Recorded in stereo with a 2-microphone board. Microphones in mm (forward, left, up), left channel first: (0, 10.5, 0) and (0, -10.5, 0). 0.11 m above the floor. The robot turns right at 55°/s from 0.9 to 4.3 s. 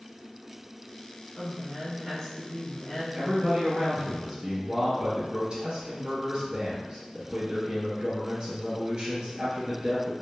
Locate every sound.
1.4 s a woman speaking: 25° right, 1.4 m; by 3.0 s 70° left, 1.4 m
3.1 s a man speaking: 135° right, 1.6 m; by 10.1 s 70° right, 1.6 m